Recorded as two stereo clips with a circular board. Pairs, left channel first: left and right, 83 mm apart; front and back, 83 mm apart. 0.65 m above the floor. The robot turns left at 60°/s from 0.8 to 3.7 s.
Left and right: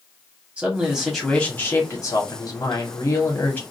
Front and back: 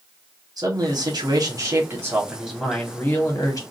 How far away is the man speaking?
About 1.5 m.